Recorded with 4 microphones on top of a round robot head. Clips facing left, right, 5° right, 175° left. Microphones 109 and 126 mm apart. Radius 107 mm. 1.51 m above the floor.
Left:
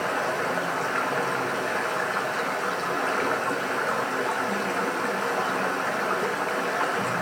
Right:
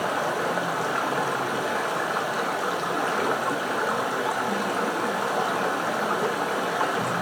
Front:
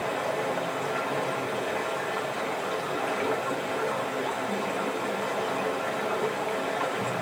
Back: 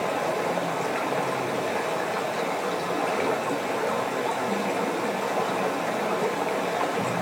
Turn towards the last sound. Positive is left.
turn(degrees=-160)